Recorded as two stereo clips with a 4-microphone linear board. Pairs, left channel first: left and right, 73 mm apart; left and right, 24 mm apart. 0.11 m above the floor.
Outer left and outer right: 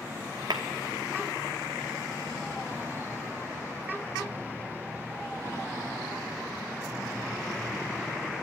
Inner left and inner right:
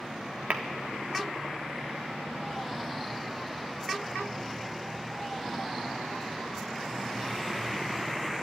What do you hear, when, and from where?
0.5 s tapping: 65° right (ahead or behind), 1.1 m